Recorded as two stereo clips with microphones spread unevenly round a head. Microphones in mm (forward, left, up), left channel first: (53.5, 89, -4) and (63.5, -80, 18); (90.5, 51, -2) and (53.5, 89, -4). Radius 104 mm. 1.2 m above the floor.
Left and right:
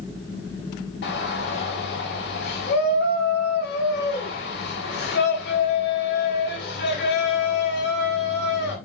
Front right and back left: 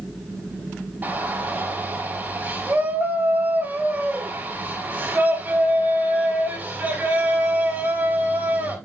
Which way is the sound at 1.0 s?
80° left.